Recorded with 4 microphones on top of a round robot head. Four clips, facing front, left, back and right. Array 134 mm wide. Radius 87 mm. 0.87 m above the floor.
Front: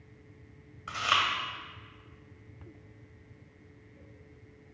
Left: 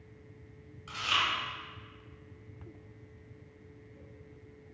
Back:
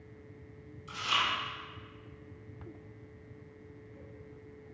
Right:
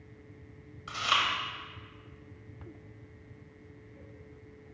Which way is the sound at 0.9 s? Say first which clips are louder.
Right 3 dB, front 4 dB; 20° right.